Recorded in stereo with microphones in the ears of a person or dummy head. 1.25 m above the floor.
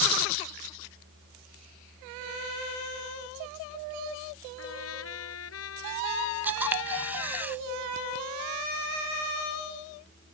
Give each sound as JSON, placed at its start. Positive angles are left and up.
{"t": 4.6, "sound": "a trumpet", "side_deg": 85}
{"t": 6.4, "sound": "a camera shutter", "side_deg": -5}